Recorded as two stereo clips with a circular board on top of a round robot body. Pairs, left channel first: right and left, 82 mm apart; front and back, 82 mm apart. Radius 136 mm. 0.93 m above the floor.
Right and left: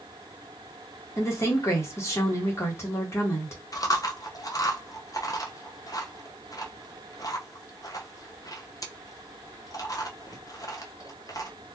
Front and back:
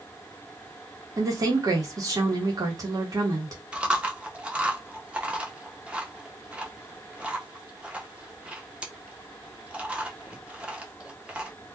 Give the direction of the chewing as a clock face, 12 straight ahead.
4 o'clock.